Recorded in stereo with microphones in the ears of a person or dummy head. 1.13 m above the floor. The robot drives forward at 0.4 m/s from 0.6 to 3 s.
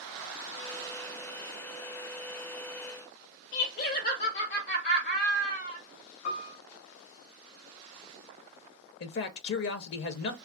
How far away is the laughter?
About 1.4 m.